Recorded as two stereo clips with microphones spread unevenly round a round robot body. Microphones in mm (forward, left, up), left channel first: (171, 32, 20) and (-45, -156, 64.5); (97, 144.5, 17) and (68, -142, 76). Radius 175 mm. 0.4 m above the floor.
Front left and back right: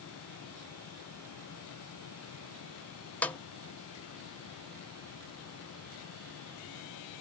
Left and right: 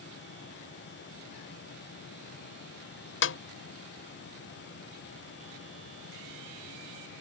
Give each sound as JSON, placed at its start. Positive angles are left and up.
{"t": 3.2, "sound": "a snare drum", "azimuth_deg": 120}